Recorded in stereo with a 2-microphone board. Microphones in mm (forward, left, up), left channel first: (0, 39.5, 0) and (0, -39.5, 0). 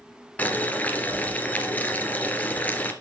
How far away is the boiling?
About 1.8 m.